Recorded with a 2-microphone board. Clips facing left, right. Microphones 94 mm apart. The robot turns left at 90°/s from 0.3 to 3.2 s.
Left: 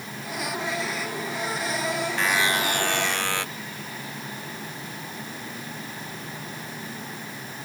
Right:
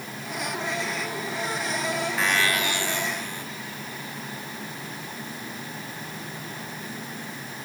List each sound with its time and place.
2.2 s a buzzer: 175° right; by 3.5 s 95° left